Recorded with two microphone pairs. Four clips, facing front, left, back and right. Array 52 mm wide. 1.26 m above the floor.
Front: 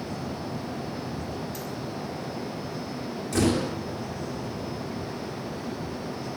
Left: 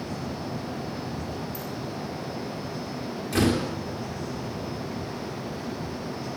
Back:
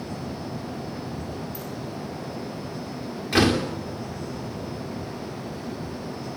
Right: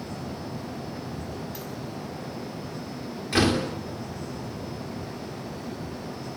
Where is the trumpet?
I don't hear a trumpet.